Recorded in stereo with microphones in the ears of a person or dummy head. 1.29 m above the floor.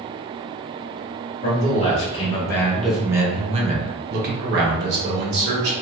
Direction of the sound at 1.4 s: 35° left (ahead or behind).